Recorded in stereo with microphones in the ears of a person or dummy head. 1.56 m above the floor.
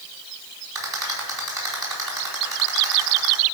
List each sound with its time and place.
0.8 s a rattle: 20° right (ahead or behind), 4.5 m